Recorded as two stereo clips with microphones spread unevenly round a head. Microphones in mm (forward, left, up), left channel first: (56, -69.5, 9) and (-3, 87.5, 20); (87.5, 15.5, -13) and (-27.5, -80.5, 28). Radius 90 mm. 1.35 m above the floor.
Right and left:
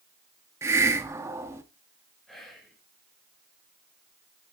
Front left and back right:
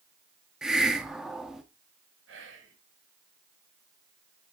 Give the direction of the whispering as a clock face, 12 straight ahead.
5 o'clock.